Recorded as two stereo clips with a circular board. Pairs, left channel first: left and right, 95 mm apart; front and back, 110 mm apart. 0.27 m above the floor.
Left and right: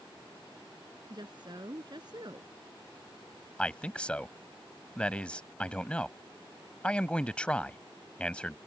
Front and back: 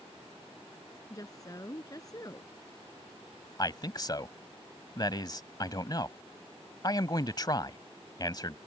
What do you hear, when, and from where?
1.1 s a woman speaking: 55° right
3.6 s a man speaking: 20° left